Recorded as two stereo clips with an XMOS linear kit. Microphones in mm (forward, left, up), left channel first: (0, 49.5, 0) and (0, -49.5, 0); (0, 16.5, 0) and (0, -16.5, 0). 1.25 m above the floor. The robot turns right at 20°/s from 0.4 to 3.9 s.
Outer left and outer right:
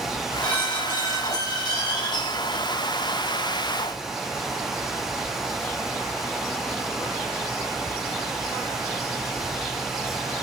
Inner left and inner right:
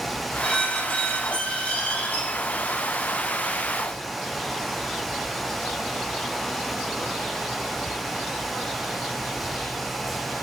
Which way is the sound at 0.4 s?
15° left.